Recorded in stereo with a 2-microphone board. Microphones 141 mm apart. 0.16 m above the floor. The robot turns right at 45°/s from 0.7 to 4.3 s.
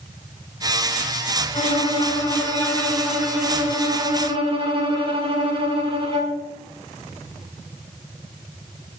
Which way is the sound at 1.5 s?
110° left.